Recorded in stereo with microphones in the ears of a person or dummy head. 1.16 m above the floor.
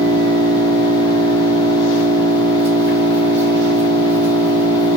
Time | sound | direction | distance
0.0 | an engine running | 15° right (ahead or behind) | 3.5 m